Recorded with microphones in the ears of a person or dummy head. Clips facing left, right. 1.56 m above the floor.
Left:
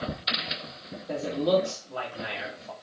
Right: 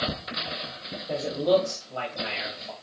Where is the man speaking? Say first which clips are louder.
Right 2 dB; 10° left (ahead or behind), 1.5 m.